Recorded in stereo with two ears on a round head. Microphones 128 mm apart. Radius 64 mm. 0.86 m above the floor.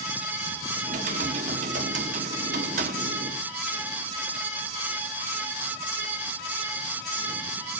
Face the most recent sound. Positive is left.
turn(degrees=-60)  # may be behind; listen again after turning